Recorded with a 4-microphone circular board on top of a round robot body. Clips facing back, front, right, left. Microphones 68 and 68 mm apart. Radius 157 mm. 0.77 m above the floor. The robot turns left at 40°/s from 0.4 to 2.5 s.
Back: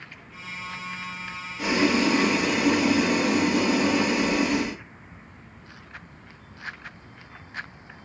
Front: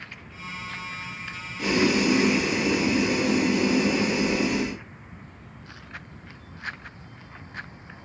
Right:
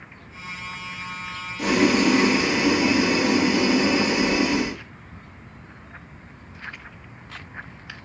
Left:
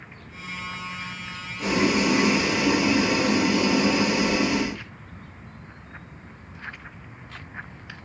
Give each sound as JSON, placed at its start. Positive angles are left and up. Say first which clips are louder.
{"t": 1.6, "sound": "boiling", "louder": "even, right 3 dB", "azimuth_deg": -115, "distance_m": 1.3}